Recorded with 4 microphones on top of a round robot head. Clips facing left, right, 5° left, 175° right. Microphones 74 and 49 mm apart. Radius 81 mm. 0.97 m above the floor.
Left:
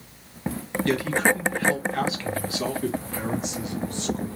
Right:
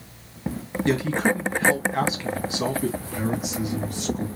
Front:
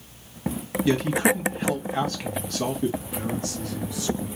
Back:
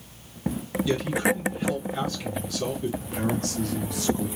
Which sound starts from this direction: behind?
A man speaking, at 3.0 s.